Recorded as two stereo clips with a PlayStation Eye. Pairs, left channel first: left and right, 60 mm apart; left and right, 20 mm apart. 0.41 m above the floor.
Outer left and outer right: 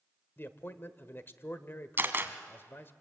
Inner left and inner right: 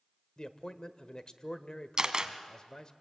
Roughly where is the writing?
No writing in this recording.